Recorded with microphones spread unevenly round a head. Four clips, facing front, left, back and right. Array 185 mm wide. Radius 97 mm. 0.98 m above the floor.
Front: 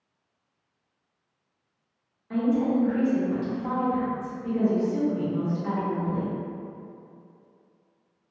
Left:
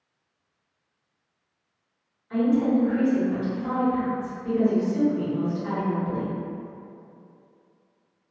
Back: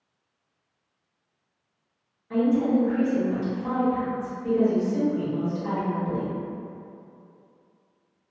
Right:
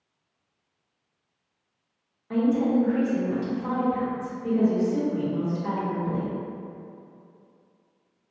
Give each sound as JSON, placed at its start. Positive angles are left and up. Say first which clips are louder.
{"t": 2.3, "sound": "a woman speaking", "louder": "left 1 dB, back 2 dB", "azimuth_deg": -80, "distance_m": 1.4}